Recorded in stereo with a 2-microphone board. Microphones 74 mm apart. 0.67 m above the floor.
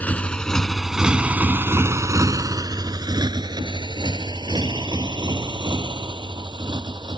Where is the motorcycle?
20° left (ahead or behind); by 7.2 s 90° right.